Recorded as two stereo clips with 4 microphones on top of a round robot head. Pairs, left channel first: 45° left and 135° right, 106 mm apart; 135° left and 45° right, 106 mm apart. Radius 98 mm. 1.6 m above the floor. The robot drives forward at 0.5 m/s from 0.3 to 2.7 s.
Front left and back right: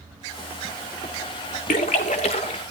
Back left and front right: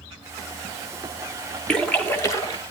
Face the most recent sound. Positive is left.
turn(degrees=90)